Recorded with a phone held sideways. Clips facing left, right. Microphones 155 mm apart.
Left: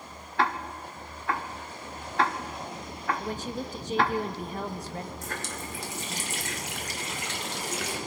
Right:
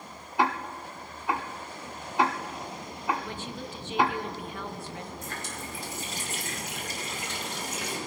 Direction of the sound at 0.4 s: 15° right (ahead or behind).